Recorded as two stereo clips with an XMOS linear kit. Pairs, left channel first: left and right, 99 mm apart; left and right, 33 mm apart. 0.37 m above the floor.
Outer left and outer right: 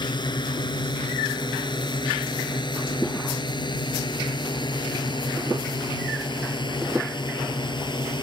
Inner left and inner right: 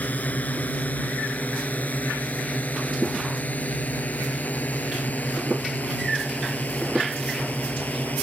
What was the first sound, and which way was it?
A drone, 50° left (ahead or behind).